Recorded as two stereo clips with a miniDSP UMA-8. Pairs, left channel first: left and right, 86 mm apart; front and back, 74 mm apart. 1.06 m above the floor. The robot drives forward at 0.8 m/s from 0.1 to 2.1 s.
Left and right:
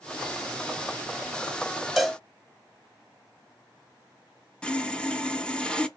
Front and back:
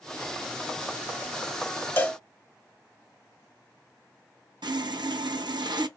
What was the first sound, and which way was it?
A cowbell, 10° right.